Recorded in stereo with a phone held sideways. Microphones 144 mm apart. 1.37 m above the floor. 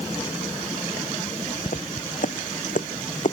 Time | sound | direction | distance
1.7 | footsteps | 65° left (ahead or behind) | ?